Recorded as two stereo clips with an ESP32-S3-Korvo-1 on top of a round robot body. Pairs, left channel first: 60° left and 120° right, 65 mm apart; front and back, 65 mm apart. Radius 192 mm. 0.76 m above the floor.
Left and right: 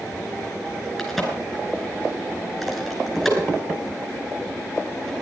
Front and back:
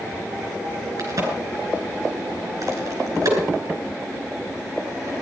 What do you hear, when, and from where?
1.0 s a crack: 150° left, 4.5 m